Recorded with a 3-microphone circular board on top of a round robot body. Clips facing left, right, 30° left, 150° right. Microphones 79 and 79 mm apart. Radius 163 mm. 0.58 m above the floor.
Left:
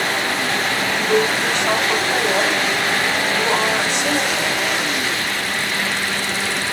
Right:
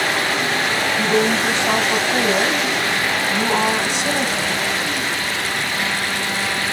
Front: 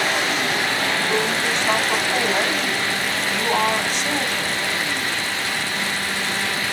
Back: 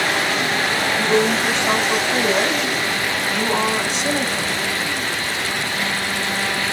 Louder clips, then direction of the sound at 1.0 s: Even, back 4 dB; 150° left.